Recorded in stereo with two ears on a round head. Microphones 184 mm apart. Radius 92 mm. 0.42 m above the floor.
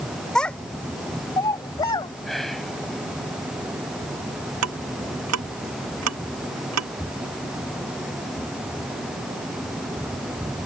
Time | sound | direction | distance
0.3 | a child speaking | 5° left (ahead or behind) | ?
2.2 | whispering | centre (ahead or behind) | ?
4.6 | ticking | 90° right | ?